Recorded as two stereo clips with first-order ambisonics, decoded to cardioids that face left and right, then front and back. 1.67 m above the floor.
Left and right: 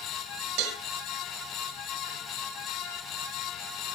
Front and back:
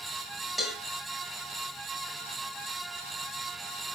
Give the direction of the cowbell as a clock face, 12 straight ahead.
3 o'clock.